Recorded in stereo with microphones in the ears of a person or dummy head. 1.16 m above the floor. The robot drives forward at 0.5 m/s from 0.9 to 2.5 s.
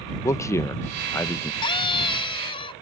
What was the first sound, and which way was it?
A man speaking, 15° left (ahead or behind).